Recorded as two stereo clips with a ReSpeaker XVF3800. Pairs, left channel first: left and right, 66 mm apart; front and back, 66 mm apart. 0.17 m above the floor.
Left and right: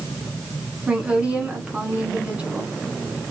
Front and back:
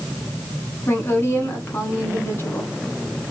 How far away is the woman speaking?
About 1.5 m.